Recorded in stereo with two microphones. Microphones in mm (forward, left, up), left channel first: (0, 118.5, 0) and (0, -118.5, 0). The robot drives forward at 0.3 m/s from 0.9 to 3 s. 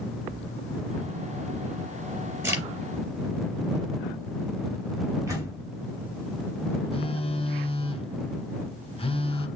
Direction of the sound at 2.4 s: 15° right (ahead or behind).